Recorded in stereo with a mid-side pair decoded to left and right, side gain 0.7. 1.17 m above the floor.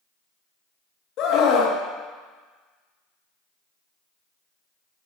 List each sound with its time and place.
1.2 s a scream: 55° left, 1.4 m